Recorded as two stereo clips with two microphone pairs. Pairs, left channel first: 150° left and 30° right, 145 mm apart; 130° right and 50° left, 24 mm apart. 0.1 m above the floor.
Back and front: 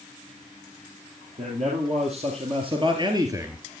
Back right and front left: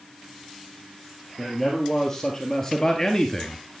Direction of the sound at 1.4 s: 60° right.